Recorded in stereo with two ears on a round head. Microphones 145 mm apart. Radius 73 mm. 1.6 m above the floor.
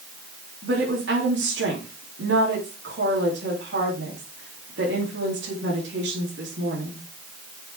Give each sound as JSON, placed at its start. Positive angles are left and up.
{"t": 0.6, "sound": "a woman speaking", "side_deg": -75, "distance_m": 4.0}